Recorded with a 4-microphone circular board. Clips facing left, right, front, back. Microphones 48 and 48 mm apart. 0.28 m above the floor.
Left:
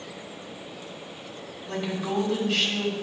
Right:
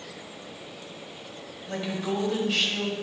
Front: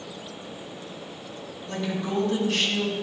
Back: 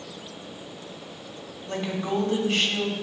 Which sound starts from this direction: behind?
A woman speaking, at 1.7 s.